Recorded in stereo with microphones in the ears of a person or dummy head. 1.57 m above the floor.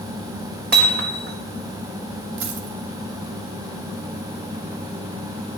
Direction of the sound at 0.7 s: 55° right (ahead or behind).